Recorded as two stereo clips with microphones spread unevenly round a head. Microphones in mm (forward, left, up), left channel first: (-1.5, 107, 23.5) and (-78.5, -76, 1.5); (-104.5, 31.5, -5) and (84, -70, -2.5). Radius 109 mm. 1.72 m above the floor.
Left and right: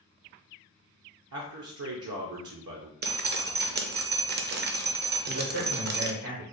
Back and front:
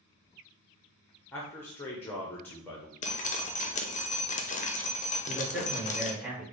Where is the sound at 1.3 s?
125° right, 0.6 m.